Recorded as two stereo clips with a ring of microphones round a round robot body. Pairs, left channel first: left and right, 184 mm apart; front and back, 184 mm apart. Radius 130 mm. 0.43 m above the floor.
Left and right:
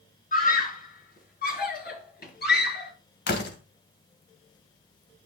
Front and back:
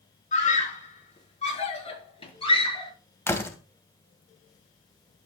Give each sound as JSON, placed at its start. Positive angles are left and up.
{"t": 0.3, "sound": "a scream", "azimuth_deg": 50, "distance_m": 6.0}
{"t": 3.3, "sound": "a door slam", "azimuth_deg": 75, "distance_m": 2.0}